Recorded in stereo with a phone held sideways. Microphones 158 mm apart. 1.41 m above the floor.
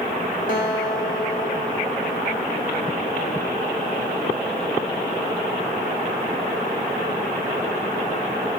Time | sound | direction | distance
0.5 | a guitar | 55° left (ahead or behind) | 2.5 m